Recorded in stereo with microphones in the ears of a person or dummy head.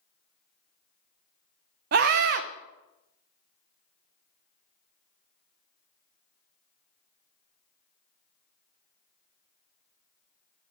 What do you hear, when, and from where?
1.9 s a scream: 60° right (ahead or behind), 0.7 m